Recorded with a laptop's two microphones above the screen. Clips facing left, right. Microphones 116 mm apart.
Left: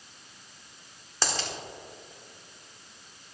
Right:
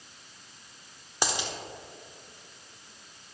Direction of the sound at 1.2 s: 15° right (ahead or behind).